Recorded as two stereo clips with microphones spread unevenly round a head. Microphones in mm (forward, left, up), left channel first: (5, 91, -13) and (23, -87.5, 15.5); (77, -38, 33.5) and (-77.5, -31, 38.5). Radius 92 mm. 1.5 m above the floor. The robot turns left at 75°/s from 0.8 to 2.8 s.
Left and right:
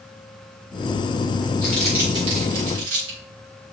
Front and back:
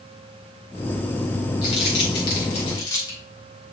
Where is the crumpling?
20° left, 4 m; by 3.2 s 70° right, 4 m.